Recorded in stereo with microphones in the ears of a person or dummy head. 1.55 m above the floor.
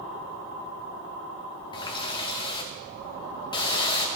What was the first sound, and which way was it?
A running tap, 25° left (ahead or behind).